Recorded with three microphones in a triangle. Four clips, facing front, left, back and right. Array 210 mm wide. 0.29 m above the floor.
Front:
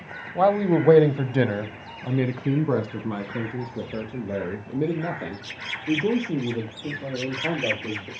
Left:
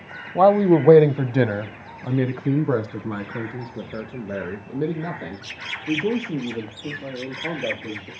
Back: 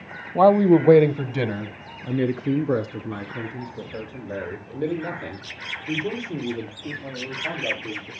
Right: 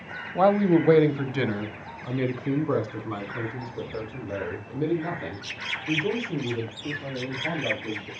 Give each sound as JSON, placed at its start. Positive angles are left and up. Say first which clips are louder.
{"t": 0.3, "sound": "a man speaking", "louder": "left 5 dB, back 5 dB", "azimuth_deg": 130, "distance_m": 1.0}